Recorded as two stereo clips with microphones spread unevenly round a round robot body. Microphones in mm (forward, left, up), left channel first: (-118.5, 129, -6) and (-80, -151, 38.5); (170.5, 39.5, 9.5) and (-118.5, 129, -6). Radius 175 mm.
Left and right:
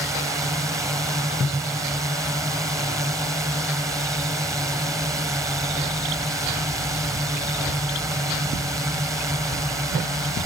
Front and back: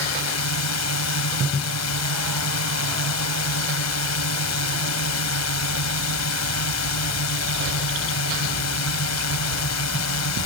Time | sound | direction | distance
0.0 | a drone | straight ahead | ?